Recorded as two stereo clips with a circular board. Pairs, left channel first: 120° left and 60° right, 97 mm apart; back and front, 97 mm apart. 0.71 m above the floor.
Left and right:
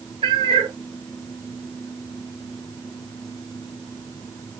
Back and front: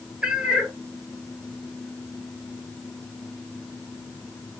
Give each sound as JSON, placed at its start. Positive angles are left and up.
{"t": 0.2, "sound": "a cat meowing", "azimuth_deg": -80, "distance_m": 0.6}